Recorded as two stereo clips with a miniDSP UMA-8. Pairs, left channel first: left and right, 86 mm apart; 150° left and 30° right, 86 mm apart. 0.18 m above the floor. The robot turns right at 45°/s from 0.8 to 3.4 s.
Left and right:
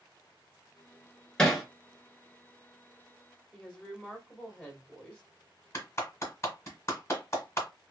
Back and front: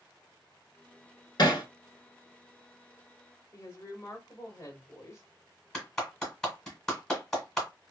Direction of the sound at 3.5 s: 155° left.